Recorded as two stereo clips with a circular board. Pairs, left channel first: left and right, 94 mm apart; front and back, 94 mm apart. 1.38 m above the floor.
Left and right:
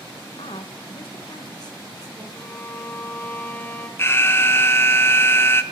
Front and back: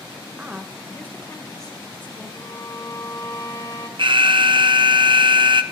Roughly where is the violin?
Ahead left.